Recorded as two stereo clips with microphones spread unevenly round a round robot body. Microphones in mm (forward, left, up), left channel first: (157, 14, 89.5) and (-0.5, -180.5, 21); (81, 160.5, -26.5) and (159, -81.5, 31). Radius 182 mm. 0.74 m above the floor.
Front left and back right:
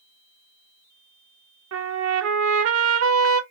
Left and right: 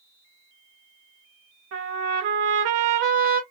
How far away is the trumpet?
About 0.7 m.